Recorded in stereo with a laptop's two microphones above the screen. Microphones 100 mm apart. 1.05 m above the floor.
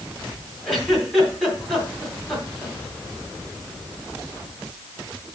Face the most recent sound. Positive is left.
turn(degrees=-5)  # may be behind; listen again after turning